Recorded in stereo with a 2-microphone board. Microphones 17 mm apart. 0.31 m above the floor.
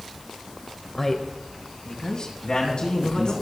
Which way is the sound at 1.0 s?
15° left (ahead or behind).